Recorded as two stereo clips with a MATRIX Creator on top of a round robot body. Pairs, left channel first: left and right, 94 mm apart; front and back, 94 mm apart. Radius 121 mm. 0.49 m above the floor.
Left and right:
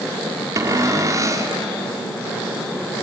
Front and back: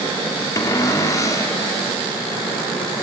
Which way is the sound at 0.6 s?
45° right.